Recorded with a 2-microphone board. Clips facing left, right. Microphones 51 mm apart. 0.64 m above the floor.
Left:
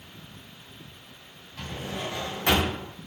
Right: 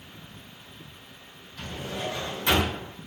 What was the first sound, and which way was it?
A drawer, 65° left (ahead or behind).